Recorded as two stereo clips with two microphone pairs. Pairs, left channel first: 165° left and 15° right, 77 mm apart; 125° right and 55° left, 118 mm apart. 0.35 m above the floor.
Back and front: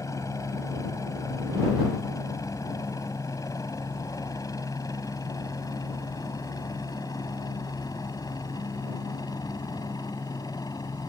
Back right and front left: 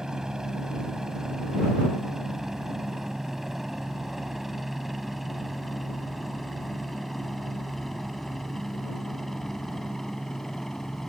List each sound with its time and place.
0.0 s a helicopter: 135° left; by 11.1 s 150° left